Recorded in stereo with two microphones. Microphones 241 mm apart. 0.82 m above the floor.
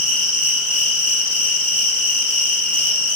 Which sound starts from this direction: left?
An insect, at 0.0 s.